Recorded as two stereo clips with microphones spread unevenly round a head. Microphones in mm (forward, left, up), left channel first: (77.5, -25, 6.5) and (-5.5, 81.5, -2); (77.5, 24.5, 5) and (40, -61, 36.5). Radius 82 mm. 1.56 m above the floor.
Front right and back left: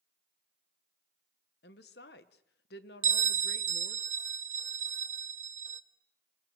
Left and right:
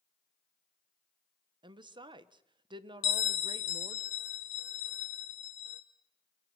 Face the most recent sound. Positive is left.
turn(degrees=105)